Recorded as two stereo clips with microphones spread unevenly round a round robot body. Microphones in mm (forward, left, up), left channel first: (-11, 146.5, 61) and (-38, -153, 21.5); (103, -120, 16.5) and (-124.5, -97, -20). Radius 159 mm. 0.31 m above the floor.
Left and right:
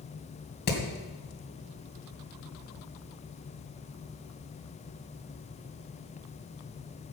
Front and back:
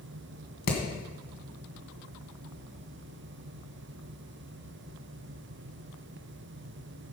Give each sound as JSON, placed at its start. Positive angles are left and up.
{"t": 0.7, "sound": "hammering", "azimuth_deg": 25, "distance_m": 2.5}